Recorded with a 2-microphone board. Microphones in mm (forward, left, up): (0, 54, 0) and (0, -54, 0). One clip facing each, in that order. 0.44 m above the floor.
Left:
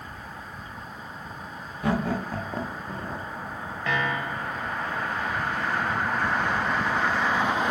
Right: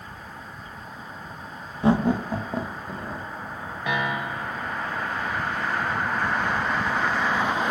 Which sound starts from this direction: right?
Laughter, at 1.8 s.